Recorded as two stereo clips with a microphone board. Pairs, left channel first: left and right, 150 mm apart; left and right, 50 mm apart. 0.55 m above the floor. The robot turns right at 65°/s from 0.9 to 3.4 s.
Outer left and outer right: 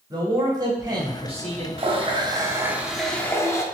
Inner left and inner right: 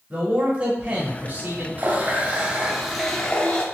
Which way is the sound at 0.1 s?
140° right.